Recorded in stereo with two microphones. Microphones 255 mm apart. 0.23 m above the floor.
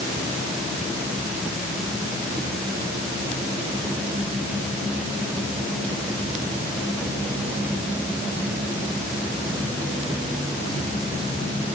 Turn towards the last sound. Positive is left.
No sound to turn to.